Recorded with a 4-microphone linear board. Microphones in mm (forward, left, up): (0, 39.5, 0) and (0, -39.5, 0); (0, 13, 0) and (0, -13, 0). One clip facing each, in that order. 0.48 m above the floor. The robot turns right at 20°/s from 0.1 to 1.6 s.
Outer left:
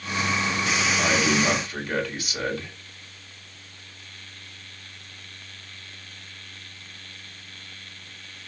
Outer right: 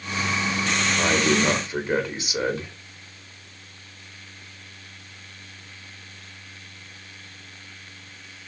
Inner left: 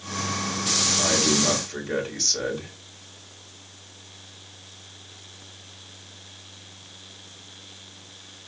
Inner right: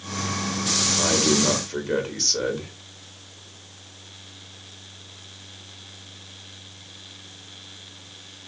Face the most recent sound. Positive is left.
turn(degrees=-20)  # may be behind; listen again after turning